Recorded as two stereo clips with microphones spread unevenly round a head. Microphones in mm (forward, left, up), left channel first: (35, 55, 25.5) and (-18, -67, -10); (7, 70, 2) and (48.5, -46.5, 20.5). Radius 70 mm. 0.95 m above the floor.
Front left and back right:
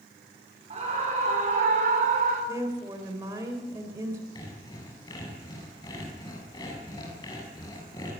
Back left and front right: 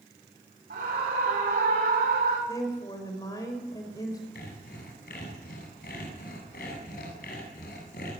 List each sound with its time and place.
0.7 s a scream: 75° right, 3.5 m; by 2.4 s 90° right, 4.5 m
2.5 s a woman speaking: 175° left, 4 m
4.3 s sawing: 125° left, 8 m